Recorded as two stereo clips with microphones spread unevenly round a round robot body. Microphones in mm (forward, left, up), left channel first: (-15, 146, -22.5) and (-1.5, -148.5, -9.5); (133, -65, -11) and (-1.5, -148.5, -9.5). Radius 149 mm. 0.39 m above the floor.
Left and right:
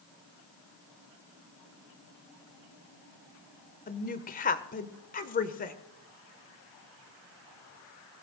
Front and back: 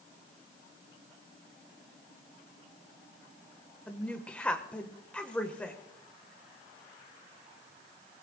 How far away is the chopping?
No chopping in this recording.